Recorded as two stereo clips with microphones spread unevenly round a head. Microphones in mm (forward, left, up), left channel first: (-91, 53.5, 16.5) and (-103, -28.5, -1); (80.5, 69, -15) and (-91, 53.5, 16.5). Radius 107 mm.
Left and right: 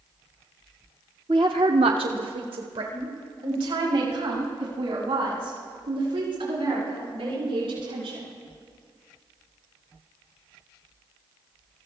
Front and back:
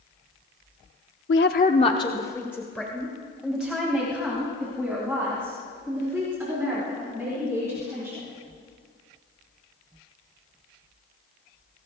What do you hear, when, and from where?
1.3 s a woman speaking: 30° right, 0.6 m; by 8.3 s 95° right, 6 m